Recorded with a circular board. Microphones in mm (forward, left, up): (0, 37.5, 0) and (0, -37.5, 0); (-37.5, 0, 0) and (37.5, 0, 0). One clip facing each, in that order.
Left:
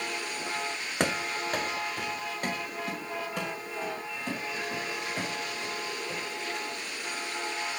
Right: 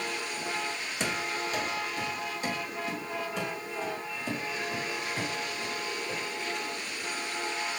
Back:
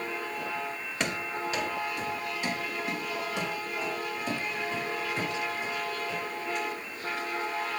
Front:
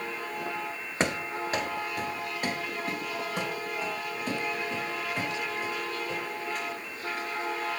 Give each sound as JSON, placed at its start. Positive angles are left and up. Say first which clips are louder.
{"t": 1.0, "sound": "running footsteps", "louder": "left 3 dB, front 3 dB", "azimuth_deg": 60, "distance_m": 0.7}